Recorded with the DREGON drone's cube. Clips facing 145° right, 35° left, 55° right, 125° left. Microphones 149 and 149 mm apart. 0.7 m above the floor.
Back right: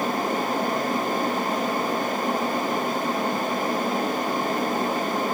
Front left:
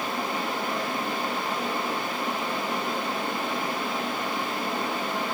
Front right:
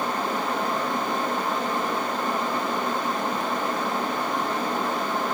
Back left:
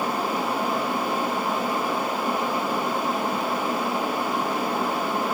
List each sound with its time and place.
Only background noise.